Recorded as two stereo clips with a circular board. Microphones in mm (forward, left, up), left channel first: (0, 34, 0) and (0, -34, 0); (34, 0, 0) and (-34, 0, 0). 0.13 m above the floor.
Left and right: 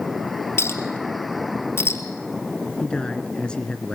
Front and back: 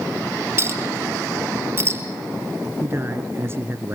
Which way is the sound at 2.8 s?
160° left.